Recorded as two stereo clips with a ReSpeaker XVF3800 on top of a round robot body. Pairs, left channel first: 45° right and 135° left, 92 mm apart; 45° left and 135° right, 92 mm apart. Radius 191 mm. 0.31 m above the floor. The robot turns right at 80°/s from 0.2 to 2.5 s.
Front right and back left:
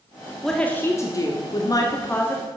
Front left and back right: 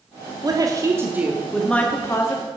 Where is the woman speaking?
130° right, 1.2 m; by 2.5 s 30° left, 1.2 m.